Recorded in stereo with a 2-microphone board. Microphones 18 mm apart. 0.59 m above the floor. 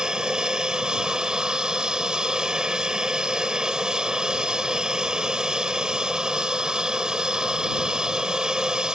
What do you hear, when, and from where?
0.0 s an aircraft: 45° right (ahead or behind)